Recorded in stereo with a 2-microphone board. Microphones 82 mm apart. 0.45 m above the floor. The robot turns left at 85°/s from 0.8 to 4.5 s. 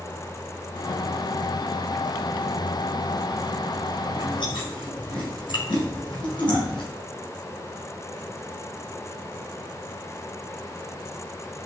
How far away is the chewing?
About 4.5 m.